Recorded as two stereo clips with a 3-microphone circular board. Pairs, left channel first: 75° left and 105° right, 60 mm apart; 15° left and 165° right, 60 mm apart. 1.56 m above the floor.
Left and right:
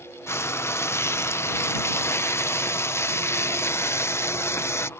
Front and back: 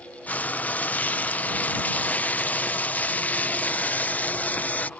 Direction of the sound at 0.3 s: 65° left.